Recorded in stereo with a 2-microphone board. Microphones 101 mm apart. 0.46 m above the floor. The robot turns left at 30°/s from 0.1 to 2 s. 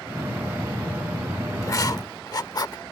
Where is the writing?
30° left (ahead or behind); by 2.8 s 40° left (ahead or behind).